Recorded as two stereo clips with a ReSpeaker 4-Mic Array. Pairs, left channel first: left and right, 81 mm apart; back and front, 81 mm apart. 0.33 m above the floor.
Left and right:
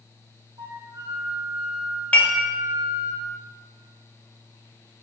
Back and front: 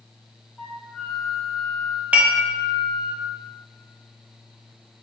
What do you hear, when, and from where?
0.6 s a flute: 105° right, 0.6 m
2.1 s dishes clattering: 45° left, 0.6 m